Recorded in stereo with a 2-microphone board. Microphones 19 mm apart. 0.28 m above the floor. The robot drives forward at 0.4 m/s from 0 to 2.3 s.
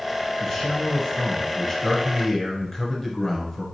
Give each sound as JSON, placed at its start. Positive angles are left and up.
{"t": 0.4, "sound": "a man speaking", "side_deg": 20, "distance_m": 1.8}